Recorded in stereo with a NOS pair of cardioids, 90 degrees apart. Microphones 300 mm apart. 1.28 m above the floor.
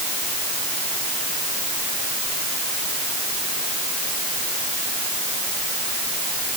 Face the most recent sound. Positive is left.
No sound to turn to.